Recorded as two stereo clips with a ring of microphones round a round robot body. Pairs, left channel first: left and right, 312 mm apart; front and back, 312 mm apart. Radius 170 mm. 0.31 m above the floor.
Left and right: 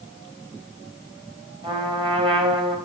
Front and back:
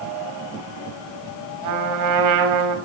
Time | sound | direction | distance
1.6 | a trumpet | 165° right | 1.9 m